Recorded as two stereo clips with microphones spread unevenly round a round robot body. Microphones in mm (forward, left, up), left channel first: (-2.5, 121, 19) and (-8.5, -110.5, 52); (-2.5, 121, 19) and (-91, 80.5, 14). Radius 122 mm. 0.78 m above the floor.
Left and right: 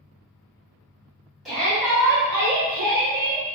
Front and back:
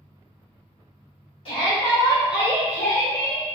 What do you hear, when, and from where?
1.4 s a shout: 5° left, 1.7 m; by 3.4 s 30° right, 1.1 m